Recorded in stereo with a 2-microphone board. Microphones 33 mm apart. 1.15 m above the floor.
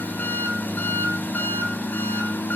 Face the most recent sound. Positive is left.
turn(degrees=65)  # may be behind; listen again after turning